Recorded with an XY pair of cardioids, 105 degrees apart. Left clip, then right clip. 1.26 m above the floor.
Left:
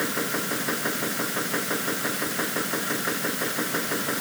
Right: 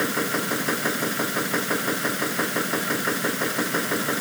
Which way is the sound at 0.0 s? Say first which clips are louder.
Right 3 dB; 25° right.